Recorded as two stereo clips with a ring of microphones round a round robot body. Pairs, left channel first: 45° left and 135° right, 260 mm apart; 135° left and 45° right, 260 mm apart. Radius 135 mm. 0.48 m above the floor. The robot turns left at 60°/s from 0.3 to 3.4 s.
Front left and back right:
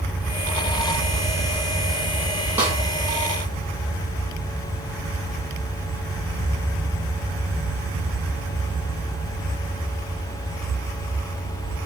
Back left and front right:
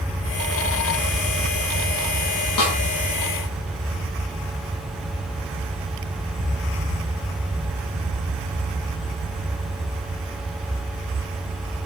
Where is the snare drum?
140° left, 6.5 m; by 2.8 s 130° left, 6.5 m.